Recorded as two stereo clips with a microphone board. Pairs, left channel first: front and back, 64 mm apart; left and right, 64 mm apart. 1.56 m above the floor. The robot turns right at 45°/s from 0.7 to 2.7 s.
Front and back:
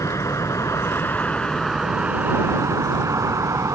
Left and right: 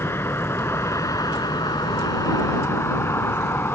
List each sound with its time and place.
0.0 s a vehicle: 35° left; by 3.8 s 145° left